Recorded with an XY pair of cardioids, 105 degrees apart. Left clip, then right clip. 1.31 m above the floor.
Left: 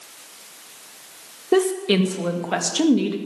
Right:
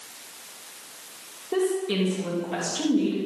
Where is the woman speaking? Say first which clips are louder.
Left 6 dB; 65° left, 2.5 m.